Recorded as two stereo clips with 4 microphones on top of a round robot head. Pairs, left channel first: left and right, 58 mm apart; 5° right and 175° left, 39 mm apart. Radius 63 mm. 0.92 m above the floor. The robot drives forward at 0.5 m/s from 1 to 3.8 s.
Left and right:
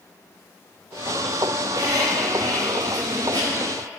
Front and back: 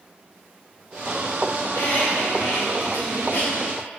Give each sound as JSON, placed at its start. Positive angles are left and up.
{"t": 1.6, "sound": "a squeak", "azimuth_deg": -50, "distance_m": 4.0}